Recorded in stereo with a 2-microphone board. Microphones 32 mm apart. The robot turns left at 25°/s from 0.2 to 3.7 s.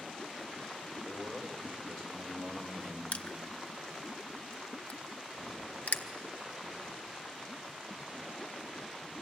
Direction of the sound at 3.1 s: 65° left (ahead or behind).